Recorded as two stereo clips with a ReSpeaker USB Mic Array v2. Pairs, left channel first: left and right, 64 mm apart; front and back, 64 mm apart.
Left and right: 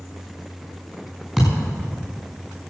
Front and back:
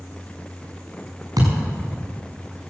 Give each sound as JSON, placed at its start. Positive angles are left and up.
{"t": 1.4, "sound": "a thud", "azimuth_deg": 180, "distance_m": 6.5}